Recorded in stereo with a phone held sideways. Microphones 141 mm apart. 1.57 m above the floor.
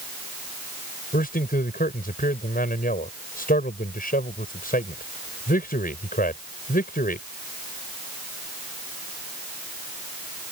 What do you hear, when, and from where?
1.1 s a man speaking: 85° left